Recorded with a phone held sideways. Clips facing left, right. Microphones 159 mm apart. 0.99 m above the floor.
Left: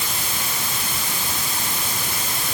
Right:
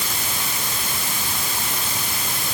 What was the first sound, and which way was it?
Only background noise.